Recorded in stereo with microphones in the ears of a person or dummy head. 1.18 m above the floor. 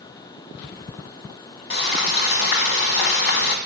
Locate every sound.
1.7 s frying: 45° left (ahead or behind), 1.4 m